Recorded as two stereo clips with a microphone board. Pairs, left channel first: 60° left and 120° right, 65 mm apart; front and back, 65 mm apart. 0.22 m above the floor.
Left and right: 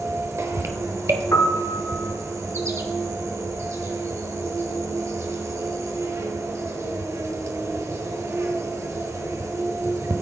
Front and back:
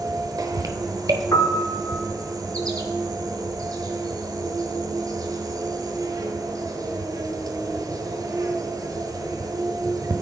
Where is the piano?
25° left, 0.5 m.